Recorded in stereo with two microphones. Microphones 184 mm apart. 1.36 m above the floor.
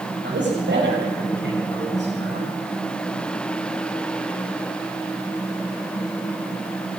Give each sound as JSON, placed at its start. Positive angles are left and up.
{"t": 0.2, "sound": "a man speaking", "side_deg": -85, "distance_m": 6.0}